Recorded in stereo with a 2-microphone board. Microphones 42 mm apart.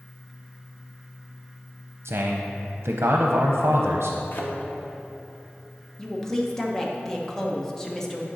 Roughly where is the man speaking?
Right.